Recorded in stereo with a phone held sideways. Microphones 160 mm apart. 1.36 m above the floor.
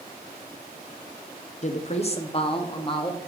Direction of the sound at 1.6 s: 45° left (ahead or behind).